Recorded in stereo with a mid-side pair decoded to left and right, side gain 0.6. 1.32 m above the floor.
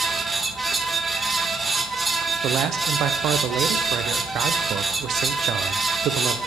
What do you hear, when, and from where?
0.0 s a fan: 15° right, 0.9 m
2.4 s a man speaking: 55° right, 0.5 m